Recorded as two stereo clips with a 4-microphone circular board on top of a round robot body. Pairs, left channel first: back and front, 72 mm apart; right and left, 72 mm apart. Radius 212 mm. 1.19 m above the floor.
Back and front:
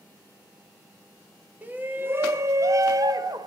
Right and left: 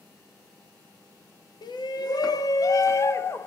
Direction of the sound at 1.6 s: 70° right.